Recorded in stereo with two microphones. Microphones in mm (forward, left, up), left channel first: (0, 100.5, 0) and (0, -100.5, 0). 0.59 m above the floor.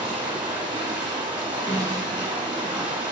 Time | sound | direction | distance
0.0 | running water | 25° right (ahead or behind) | 1.1 m
1.7 | a snare drum | 5° left (ahead or behind) | 1.1 m